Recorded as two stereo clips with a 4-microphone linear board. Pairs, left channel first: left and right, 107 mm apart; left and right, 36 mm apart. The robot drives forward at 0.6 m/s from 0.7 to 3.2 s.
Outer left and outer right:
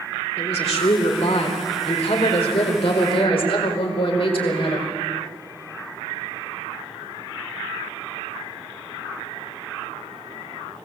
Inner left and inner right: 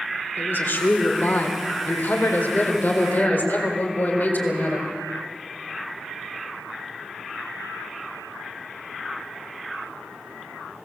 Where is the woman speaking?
80° left, 4 m; by 4.9 s 60° left (ahead or behind), 4.5 m.